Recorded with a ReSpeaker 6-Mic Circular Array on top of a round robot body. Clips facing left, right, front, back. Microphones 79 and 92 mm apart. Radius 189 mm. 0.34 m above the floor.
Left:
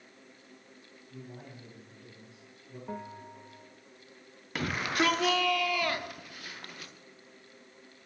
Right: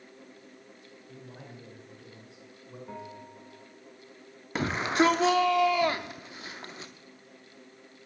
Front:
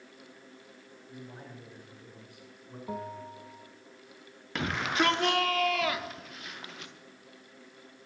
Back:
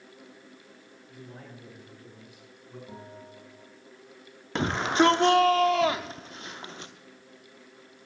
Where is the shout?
140° right, 1.0 m.